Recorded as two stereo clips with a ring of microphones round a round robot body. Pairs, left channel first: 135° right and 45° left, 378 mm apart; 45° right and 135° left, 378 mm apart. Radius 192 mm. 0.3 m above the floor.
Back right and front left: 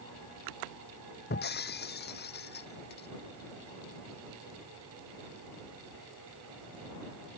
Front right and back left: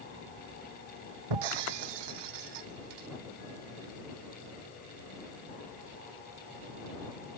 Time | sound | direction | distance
1.3 | breaking glass | 160° left | ?